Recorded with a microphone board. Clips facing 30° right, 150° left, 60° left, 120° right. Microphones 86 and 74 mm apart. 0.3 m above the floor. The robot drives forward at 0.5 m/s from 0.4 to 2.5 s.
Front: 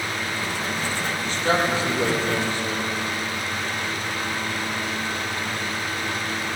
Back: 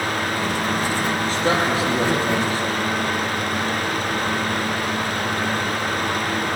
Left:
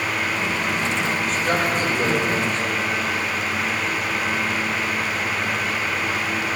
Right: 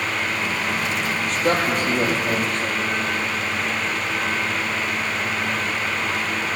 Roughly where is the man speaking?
Behind.